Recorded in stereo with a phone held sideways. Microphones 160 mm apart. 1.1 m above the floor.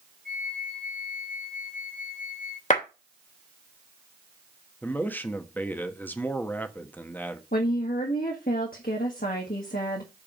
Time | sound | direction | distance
0.2 | a flute | 60° right (ahead or behind) | 1.8 m
2.7 | a clap | 50° left (ahead or behind) | 2.5 m
4.8 | a man speaking | 10° left (ahead or behind) | 1.2 m
7.5 | a woman speaking | 65° left (ahead or behind) | 1.7 m